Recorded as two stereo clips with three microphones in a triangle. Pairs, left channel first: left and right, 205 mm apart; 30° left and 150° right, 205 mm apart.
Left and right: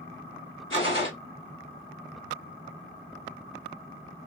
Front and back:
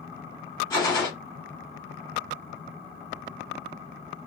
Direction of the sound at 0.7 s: 100° left.